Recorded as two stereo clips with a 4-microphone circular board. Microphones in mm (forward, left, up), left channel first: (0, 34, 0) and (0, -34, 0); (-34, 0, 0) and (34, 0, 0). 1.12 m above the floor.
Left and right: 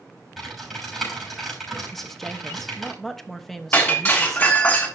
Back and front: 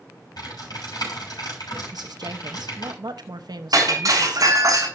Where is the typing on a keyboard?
Straight behind, 6.5 m.